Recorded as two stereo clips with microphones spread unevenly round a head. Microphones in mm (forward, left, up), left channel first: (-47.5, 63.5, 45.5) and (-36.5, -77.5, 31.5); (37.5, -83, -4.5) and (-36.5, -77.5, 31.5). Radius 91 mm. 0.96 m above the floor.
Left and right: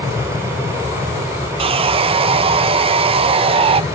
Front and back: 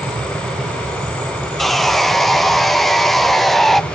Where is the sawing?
65° right.